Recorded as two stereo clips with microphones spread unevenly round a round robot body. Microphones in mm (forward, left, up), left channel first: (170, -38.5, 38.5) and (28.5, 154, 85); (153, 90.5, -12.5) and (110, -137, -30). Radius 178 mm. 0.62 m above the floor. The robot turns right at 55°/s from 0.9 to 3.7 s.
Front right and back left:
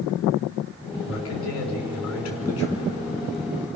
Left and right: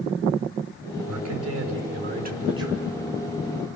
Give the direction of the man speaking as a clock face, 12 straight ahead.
4 o'clock.